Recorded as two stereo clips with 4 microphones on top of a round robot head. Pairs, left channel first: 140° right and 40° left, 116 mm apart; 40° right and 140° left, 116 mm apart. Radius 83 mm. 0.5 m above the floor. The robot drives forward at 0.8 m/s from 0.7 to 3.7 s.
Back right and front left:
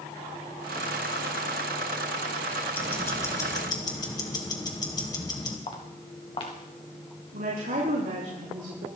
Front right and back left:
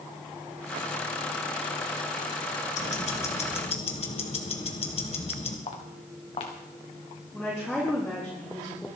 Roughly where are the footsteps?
Right.